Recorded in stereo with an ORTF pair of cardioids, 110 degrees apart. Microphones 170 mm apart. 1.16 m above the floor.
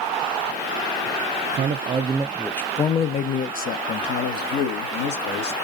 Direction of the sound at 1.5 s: 50° right.